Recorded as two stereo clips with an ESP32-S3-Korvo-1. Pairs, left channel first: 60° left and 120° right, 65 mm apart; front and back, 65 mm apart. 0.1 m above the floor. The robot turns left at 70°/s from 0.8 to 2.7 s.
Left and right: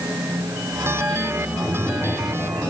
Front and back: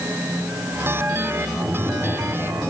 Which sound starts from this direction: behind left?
Tapping, at 1.6 s.